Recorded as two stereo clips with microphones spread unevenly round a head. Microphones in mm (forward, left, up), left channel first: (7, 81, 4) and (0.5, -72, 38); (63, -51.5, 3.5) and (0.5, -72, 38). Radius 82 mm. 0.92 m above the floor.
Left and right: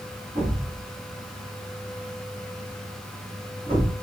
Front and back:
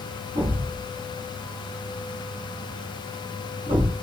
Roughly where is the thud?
Behind.